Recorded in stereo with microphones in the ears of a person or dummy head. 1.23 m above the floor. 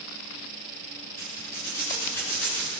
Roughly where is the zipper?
Centre.